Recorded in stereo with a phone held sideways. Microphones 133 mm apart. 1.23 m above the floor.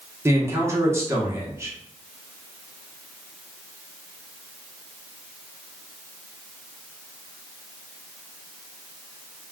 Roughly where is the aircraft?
I don't hear an aircraft.